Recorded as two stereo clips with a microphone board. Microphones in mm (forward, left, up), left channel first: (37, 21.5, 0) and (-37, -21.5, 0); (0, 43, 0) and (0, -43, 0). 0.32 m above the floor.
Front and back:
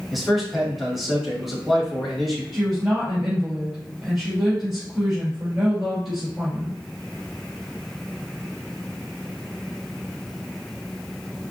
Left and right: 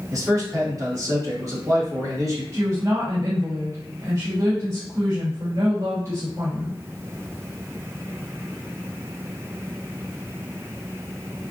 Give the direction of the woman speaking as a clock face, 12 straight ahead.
2 o'clock.